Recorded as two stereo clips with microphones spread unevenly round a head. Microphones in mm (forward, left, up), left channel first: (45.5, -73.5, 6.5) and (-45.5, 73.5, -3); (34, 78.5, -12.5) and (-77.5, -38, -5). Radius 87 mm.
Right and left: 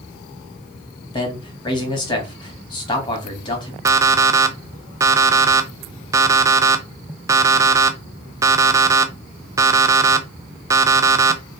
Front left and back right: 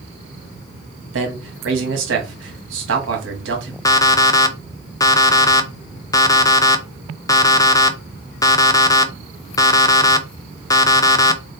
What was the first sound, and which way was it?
A man speaking, 125° right.